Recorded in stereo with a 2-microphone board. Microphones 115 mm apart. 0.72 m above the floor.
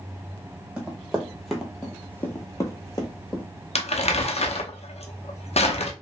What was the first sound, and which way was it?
Running footsteps, 10° right (ahead or behind).